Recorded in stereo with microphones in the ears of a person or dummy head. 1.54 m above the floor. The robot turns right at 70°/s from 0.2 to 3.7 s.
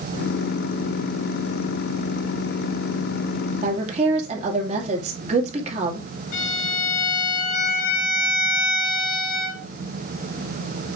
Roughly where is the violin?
Left.